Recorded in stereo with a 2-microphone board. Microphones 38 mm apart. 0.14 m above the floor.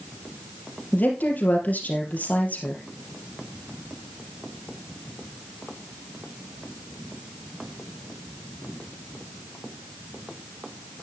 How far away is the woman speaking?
About 3.5 m.